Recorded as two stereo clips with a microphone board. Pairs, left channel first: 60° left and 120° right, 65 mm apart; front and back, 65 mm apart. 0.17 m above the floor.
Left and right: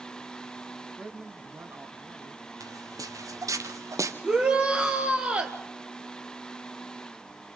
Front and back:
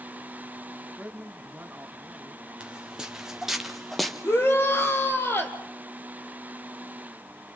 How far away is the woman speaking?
About 1.3 m.